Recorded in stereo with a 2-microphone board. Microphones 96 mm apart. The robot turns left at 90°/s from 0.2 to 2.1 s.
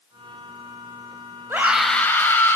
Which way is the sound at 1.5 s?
150° right.